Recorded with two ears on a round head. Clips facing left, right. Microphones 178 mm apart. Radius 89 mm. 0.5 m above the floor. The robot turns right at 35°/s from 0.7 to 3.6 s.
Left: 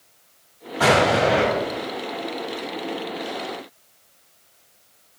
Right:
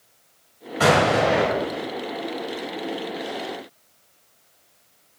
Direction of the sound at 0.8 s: 30° right (ahead or behind).